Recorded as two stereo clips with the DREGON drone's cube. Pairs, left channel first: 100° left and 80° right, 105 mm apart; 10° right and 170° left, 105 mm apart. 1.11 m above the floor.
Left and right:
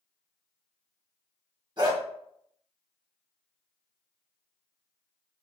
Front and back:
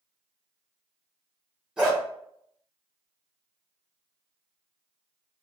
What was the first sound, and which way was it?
A dog barking, 115° right.